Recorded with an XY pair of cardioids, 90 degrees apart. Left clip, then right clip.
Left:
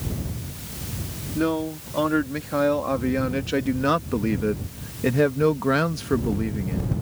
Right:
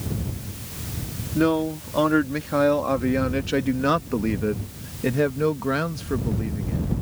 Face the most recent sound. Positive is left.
turn(degrees=45)